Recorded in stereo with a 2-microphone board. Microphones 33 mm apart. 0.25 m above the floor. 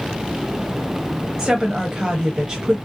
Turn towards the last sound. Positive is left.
turn(degrees=-20)  # may be behind; listen again after turning